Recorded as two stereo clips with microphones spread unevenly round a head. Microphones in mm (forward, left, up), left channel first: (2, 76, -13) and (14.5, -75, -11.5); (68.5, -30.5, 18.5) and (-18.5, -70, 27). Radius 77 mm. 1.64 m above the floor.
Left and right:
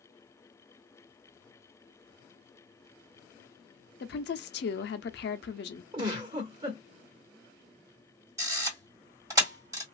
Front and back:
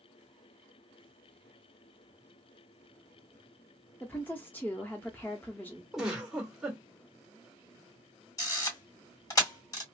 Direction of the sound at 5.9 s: 85° right.